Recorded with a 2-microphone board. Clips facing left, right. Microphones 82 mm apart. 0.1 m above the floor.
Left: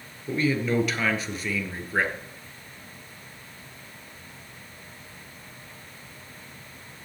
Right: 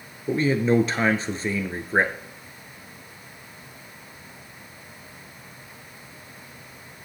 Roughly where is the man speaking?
Right.